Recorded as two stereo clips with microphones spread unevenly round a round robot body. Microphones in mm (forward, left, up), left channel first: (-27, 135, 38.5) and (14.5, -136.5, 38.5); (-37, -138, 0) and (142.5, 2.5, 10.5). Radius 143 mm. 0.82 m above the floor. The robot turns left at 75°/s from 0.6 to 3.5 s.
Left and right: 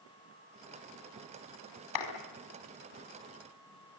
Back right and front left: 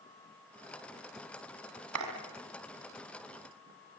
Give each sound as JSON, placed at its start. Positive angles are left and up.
{"t": 1.9, "sound": "a clap", "azimuth_deg": 80, "distance_m": 5.0}